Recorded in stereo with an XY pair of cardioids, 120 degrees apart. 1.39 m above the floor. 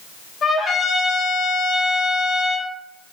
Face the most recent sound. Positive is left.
turn(degrees=40)